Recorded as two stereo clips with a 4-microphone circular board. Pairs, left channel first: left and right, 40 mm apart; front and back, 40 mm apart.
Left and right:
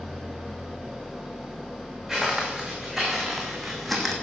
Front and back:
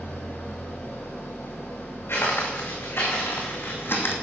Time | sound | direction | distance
0.0 | an engine running | straight ahead | 4.5 m
2.1 | footsteps | straight ahead | 5 m